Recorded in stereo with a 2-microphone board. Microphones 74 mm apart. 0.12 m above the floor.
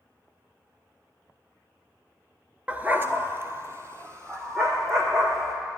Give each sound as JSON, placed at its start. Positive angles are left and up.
{"t": 2.7, "sound": "a dog barking", "side_deg": -20, "distance_m": 0.5}